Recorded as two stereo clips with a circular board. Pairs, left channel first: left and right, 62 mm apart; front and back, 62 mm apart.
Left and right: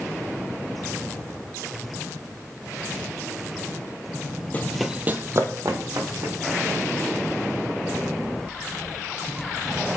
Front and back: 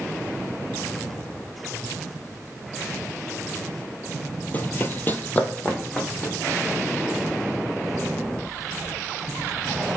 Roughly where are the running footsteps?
Ahead left.